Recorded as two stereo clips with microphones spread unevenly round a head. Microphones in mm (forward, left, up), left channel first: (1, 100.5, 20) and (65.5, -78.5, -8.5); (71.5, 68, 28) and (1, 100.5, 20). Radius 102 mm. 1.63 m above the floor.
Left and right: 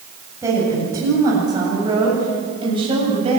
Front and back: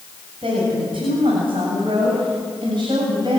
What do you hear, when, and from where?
0.4 s a woman speaking: 150° right, 8 m; by 3.4 s 135° right, 8 m